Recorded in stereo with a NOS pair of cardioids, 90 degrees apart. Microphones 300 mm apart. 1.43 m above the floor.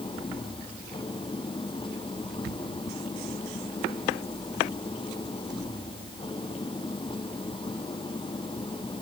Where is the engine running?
15° left.